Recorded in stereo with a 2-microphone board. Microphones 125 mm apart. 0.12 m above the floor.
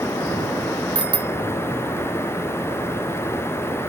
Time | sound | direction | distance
0.9 | a bicycle bell | 10° right (ahead or behind) | ?